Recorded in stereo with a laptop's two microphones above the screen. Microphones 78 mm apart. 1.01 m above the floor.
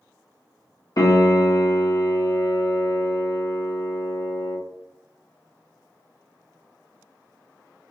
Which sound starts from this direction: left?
A piano, at 1.0 s.